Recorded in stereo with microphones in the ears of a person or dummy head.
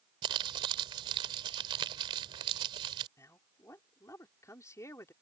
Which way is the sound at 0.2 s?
30° right (ahead or behind).